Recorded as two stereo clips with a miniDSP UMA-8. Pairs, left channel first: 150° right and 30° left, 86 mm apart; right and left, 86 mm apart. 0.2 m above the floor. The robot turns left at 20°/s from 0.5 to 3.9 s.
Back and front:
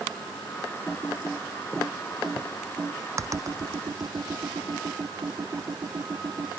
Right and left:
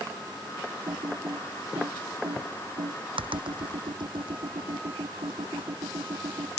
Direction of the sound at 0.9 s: 130° left.